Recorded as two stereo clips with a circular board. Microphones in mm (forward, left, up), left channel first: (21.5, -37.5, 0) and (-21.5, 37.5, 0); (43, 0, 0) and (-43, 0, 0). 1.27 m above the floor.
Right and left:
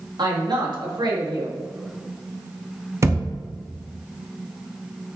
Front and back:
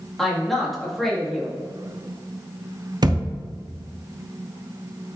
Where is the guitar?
I don't hear a guitar.